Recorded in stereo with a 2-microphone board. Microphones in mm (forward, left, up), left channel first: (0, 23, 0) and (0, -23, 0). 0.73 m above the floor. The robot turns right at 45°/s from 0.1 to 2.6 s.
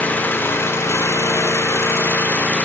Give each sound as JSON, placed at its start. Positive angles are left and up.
{"t": 0.0, "sound": "an engine running", "azimuth_deg": 35, "distance_m": 1.0}